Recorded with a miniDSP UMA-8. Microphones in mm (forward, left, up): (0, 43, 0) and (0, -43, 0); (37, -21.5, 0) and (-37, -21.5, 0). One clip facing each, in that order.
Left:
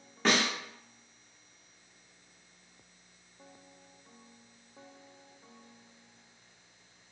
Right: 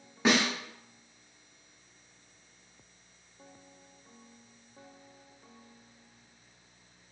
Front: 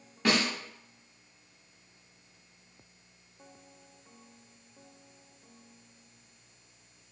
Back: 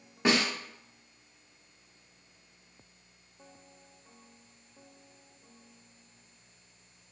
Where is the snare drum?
155° right, 1.0 m.